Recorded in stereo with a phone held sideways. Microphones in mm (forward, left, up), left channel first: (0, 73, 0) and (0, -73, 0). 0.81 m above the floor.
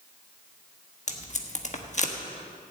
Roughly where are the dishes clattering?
I don't hear dishes clattering.